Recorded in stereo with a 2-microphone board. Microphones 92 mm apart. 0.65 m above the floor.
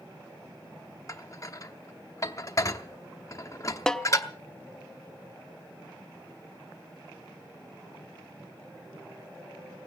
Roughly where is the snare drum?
Centre.